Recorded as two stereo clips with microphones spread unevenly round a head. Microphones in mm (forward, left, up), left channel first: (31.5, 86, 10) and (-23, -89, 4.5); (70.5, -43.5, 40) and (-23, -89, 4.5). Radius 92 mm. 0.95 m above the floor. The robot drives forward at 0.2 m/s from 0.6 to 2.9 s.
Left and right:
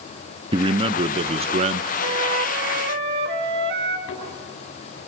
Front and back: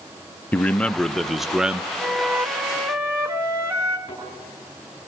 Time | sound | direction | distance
0.5 | a man speaking | 70° right | 0.6 m
2.0 | a flute | 65° right | 1.1 m
4.1 | a thud | 105° left | 6.5 m